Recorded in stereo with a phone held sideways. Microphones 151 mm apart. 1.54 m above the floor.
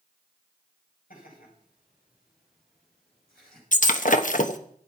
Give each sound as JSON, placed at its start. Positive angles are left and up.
{"t": 1.1, "sound": "laughter", "side_deg": 70, "distance_m": 9.5}
{"t": 3.7, "sound": "breaking glass", "side_deg": 60, "distance_m": 1.2}